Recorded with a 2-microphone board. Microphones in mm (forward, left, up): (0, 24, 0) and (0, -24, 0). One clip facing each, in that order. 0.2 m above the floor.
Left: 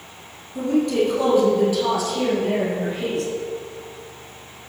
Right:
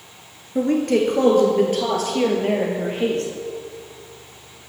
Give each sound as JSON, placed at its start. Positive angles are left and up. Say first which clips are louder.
{"t": 0.6, "sound": "a woman speaking", "louder": "right 1 dB", "side_deg": -55, "distance_m": 3.0}